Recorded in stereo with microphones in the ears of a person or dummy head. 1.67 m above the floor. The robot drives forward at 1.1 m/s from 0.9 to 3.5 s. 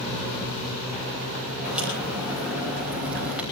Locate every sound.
1.6 s a crack: 5° right (ahead or behind), 8.5 m